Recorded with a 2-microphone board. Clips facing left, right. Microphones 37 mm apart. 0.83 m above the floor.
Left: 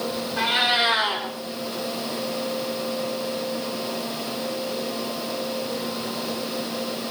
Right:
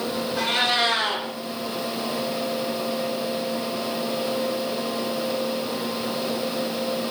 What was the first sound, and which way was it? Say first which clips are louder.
A cat meowing: left 2 dB; 20° left (ahead or behind).